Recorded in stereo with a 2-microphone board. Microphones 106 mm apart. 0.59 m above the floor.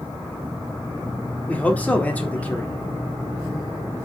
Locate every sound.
1.5 s a man speaking: 10° left (ahead or behind), 1.5 m